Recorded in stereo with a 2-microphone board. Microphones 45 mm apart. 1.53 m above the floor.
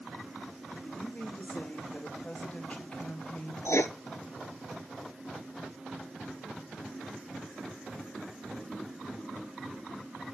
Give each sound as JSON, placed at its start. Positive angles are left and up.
{"t": 0.8, "sound": "a woman speaking", "side_deg": 30, "distance_m": 4.0}
{"t": 3.6, "sound": "writing", "side_deg": 80, "distance_m": 1.0}